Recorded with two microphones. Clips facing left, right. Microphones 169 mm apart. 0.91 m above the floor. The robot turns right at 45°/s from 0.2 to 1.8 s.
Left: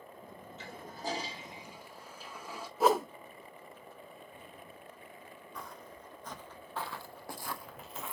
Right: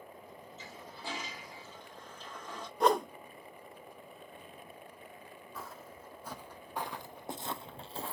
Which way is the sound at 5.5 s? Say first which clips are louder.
Even; 5° right (ahead or behind).